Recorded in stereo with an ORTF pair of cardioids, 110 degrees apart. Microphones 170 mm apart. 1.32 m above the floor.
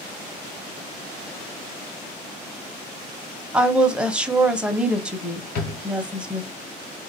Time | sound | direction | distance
3.5 | a woman speaking | 5° right | 1.1 m
5.5 | a drawer | 65° left | 1.6 m